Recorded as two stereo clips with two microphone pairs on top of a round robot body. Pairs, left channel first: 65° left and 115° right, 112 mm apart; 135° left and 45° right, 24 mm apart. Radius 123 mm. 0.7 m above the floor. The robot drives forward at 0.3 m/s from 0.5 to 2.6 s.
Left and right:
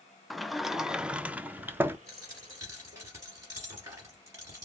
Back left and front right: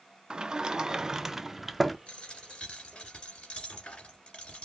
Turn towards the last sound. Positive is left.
turn(degrees=180)